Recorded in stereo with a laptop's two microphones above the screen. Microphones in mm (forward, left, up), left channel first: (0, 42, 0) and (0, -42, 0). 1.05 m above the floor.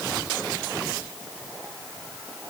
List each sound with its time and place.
Only background noise.